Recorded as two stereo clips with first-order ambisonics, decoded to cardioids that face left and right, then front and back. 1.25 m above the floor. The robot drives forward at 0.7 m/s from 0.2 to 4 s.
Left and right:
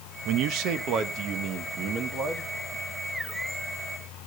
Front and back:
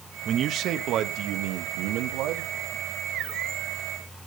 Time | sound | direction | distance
0.2 | a man speaking | 120° right | 1.2 m